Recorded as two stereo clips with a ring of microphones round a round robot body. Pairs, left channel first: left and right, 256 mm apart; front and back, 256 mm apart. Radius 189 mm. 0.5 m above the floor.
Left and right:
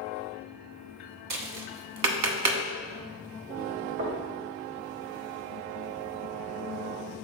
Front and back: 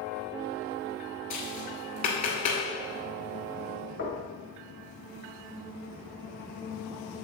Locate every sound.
1.3 s tapping: 75° right, 1.2 m
4.0 s knocking: 60° right, 1.8 m